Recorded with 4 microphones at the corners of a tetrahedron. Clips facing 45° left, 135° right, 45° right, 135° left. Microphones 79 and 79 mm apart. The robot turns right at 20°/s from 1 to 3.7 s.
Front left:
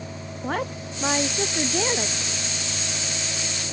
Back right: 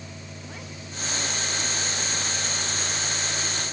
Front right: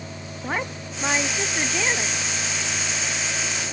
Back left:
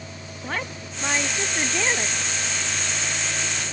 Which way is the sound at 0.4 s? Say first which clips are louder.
Front left 16 dB, front right 2 dB; 30° left.